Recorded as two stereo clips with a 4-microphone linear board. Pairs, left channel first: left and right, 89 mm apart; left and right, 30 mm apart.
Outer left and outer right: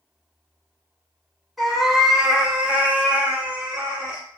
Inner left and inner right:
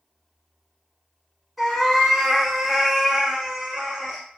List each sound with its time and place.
1.6 s a cat meowing: centre (ahead or behind), 0.7 m; by 4.2 s 15° right (ahead or behind), 1.0 m